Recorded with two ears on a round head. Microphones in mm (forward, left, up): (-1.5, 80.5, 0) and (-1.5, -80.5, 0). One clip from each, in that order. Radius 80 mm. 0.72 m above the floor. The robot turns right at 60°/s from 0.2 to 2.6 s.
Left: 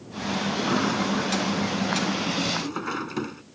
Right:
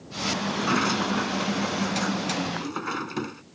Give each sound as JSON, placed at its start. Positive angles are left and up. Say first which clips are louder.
{"t": 0.5, "sound": "a sliding door", "louder": "even", "azimuth_deg": -135}